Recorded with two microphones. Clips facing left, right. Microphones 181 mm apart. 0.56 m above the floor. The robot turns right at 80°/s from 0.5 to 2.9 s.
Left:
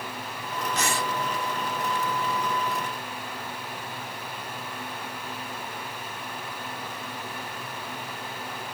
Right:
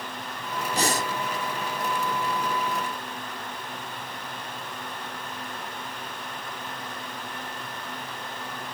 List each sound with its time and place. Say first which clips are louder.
0.7 s breathing: right 3 dB; 30° right (ahead or behind); by 1.1 s 45° right (ahead or behind)